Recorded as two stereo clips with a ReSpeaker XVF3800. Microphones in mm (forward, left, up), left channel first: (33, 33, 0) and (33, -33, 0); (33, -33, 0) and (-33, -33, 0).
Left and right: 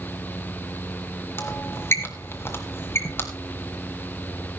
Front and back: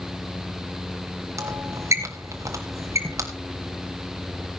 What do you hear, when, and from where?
1.4 s a squeak: 140° left, 2.5 m